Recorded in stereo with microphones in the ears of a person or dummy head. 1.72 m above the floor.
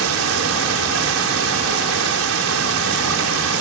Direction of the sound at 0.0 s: 85° right.